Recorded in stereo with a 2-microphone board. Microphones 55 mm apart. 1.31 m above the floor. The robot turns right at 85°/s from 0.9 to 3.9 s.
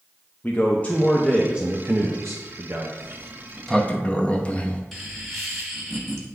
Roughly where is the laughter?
Centre.